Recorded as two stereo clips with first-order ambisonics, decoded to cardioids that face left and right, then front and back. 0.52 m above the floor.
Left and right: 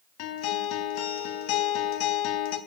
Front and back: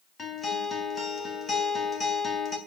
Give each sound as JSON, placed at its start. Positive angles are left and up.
{"t": 0.2, "sound": "a guitar", "azimuth_deg": 75, "distance_m": 3.5}